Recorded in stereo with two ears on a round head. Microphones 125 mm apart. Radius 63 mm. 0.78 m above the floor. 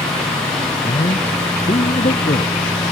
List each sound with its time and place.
0.8 s a man speaking: 35° left (ahead or behind); by 2.5 s 45° left (ahead or behind)